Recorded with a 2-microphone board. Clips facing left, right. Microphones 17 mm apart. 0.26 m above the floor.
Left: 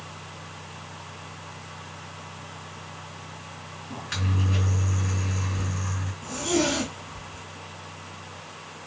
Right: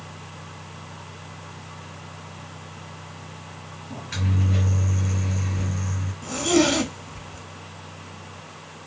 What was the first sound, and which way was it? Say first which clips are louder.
A microwave: right 1 dB; 60° left (ahead or behind).